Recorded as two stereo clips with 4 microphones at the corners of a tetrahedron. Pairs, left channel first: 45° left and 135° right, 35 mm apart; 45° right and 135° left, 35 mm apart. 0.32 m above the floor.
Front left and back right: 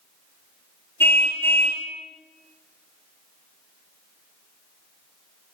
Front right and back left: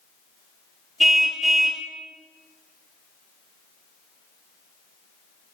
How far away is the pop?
I don't hear a pop.